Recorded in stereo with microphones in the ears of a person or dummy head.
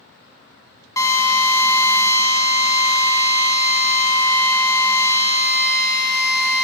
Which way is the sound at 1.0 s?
20° left (ahead or behind).